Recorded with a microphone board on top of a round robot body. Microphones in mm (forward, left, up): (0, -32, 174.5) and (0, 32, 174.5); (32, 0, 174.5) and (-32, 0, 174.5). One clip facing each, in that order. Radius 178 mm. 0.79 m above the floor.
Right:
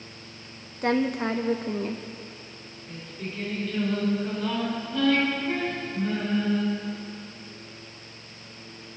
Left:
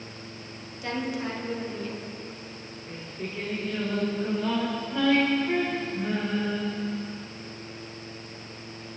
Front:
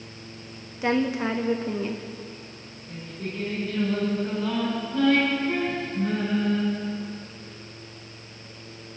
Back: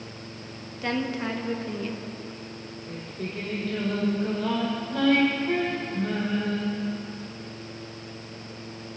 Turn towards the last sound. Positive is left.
turn(degrees=160)